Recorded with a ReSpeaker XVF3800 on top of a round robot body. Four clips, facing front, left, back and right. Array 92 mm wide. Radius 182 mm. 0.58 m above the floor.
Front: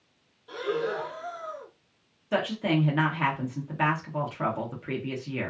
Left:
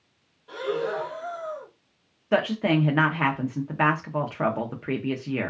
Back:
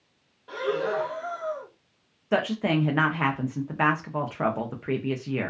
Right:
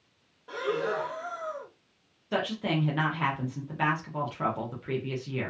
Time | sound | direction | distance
0.5 | breathing | 150° right | 1.0 m
2.3 | a woman speaking | 125° left | 0.7 m